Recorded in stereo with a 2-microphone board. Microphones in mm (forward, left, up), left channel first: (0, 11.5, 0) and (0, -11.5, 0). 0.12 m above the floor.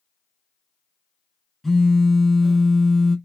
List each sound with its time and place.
1.6 s a phone buzzing: centre (ahead or behind), 0.7 m